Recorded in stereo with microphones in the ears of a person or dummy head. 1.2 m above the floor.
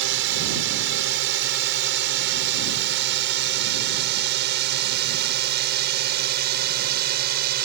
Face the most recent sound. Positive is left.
turn(degrees=-55)  # may be behind; listen again after turning